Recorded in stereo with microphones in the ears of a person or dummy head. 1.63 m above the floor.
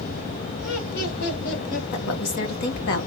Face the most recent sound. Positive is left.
turn(degrees=55)  # may be behind; listen again after turning